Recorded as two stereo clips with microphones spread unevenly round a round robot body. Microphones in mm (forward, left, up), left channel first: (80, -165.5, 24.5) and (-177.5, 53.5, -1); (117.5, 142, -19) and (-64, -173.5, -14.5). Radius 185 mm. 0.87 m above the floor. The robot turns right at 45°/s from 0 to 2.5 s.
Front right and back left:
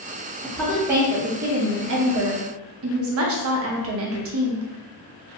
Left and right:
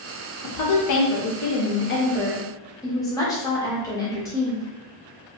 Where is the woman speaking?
45° left, 0.6 m; by 4.7 s 135° left, 0.6 m.